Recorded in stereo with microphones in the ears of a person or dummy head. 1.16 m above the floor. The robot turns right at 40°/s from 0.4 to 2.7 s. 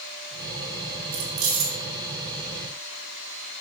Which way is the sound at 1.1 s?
65° right (ahead or behind).